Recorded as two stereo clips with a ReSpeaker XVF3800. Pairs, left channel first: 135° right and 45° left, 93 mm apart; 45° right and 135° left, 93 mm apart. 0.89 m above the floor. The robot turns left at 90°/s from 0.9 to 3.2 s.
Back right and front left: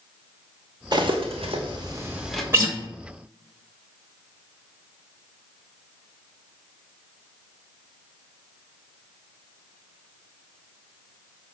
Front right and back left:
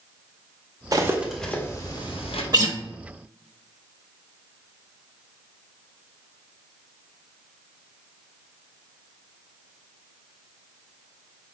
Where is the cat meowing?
I don't hear a cat meowing.